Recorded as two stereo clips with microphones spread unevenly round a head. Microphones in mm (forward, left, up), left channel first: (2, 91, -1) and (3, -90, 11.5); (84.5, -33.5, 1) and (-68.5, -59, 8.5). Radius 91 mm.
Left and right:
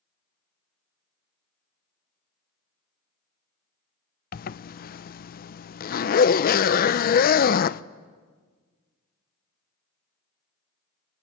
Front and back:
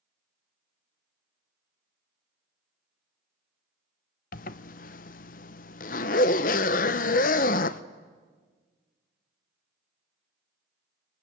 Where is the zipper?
50° left, 0.5 m.